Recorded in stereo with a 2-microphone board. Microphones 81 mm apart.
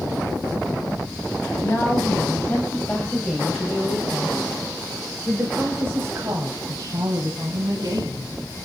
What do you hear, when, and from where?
1.6 s a woman speaking: 35° left (ahead or behind), 3 m; by 8.3 s 60° right (ahead or behind), 4 m